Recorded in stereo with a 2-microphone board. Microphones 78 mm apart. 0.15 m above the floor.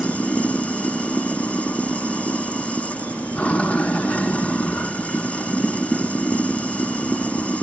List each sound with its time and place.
0.0 s running water: 20° left (ahead or behind), 0.7 m